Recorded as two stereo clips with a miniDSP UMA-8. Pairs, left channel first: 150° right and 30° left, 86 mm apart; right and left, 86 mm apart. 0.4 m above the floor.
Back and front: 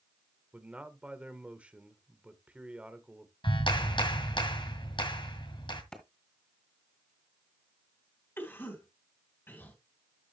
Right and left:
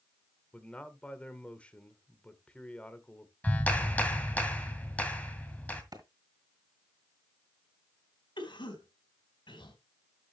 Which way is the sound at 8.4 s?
90° right.